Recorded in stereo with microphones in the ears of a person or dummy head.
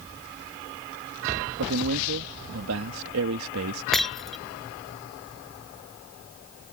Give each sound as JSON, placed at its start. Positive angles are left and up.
{"t": 1.6, "sound": "a man speaking", "side_deg": -75}
{"t": 3.9, "sound": "breaking glass", "side_deg": 0}